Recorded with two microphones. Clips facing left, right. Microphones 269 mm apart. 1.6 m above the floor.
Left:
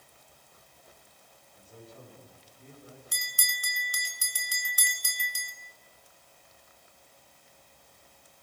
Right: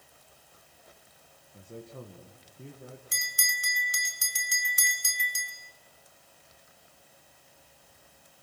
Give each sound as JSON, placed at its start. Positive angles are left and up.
{"t": 1.5, "sound": "a man speaking", "side_deg": -80, "distance_m": 1.8}
{"t": 3.1, "sound": "a bell", "side_deg": -25, "distance_m": 1.7}